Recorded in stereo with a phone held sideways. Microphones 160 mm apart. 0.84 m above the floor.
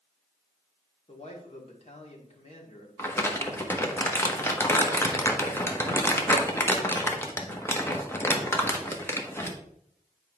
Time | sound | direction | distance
1.1 | a man speaking | 45° left (ahead or behind) | 1.8 m
3.0 | crumpling | 15° left (ahead or behind) | 1.1 m